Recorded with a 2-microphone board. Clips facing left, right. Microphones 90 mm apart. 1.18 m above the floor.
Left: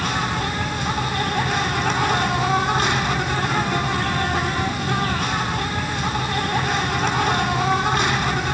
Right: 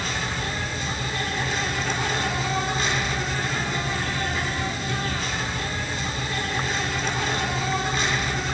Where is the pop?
I don't hear a pop.